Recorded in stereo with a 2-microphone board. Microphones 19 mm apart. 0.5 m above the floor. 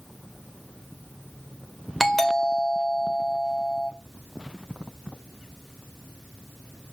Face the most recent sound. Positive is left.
turn(degrees=15)  # may be behind; listen again after turning